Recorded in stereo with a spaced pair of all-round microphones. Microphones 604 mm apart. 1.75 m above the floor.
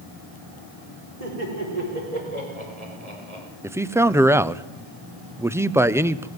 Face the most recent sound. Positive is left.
turn(degrees=-5)  # may be behind; listen again after turning